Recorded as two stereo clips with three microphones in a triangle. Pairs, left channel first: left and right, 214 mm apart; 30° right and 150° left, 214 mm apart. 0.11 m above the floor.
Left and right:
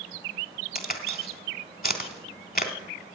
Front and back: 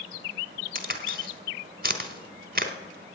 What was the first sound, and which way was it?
A crack, 125° left.